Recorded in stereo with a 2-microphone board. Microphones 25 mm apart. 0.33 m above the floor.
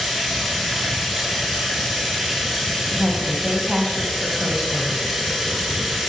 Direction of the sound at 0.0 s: Centre (ahead or behind).